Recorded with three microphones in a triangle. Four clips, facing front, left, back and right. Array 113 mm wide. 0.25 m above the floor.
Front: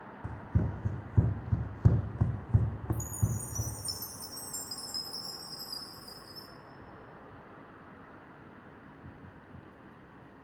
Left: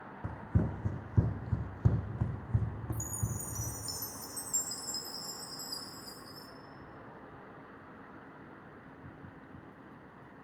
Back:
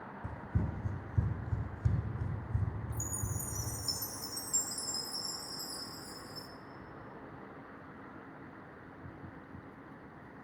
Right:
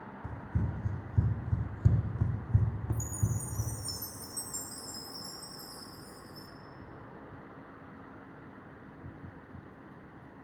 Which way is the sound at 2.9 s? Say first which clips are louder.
Right 3 dB, front 4 dB; 30° left.